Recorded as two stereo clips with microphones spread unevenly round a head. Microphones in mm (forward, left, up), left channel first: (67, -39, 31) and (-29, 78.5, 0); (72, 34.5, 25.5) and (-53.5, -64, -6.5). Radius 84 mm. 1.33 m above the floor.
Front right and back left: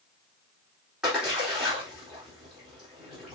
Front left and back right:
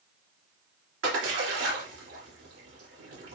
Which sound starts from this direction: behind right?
A splash, at 1.0 s.